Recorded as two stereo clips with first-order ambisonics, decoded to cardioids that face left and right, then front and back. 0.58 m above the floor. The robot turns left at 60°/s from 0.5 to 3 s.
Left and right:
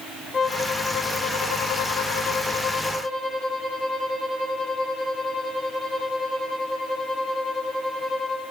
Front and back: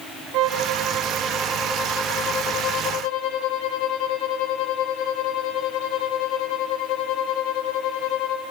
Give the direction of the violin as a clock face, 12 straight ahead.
7 o'clock.